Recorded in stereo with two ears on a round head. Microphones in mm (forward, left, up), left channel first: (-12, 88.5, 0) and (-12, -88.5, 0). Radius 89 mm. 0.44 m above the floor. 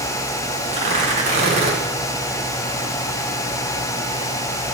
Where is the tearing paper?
35° right (ahead or behind), 4.5 m.